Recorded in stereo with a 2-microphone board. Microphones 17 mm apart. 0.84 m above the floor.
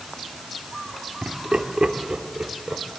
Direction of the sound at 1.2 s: 75° right (ahead or behind).